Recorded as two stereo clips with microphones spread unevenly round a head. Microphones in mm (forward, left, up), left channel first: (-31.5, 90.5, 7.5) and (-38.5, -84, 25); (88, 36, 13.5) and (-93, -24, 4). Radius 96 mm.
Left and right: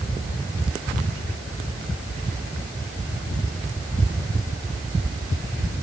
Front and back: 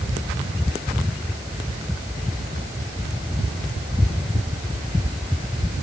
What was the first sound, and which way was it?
Only background noise.